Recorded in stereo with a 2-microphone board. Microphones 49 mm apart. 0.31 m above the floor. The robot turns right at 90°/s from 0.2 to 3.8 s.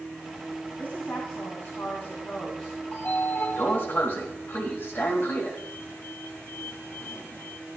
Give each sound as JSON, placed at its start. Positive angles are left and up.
{"t": 0.8, "sound": "a woman speaking", "azimuth_deg": 20, "distance_m": 2.0}
{"t": 2.9, "sound": "a sliding door", "side_deg": 30, "distance_m": 2.0}